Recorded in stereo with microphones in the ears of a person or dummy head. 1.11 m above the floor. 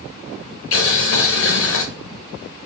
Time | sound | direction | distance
0.7 | boiling | 70° left (ahead or behind) | 0.8 m